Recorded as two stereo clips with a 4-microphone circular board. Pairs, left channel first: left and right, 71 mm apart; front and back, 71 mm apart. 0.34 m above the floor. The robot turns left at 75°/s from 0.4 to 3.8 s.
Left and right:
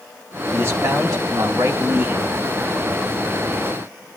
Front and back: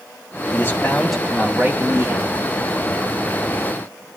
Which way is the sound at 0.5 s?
40° right.